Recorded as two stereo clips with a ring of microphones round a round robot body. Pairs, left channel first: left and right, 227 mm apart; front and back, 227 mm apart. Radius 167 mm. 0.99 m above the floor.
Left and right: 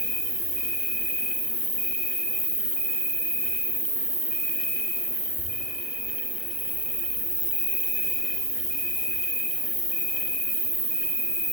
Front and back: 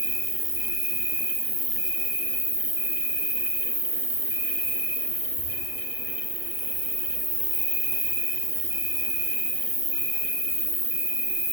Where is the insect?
120° left, 0.8 m.